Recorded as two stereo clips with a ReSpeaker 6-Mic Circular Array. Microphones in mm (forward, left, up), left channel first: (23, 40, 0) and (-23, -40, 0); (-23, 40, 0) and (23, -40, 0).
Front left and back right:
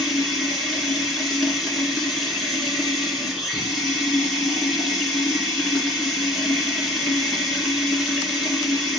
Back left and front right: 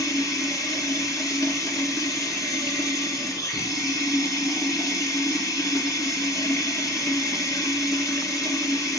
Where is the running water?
150° left, 1.7 m.